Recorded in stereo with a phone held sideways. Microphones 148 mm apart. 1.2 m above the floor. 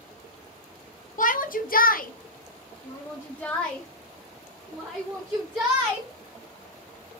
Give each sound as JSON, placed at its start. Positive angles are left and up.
{"t": 1.2, "sound": "a shout", "side_deg": 60, "distance_m": 0.7}